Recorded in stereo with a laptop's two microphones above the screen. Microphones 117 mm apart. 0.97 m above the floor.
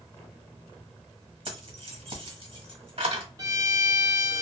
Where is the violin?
30° right (ahead or behind), 0.6 m.